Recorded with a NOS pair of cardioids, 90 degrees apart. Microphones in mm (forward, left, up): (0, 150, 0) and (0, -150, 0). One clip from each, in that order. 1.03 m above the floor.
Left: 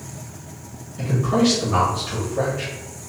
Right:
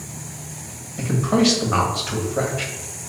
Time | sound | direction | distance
1.0 | a man speaking | 40° right | 1.5 m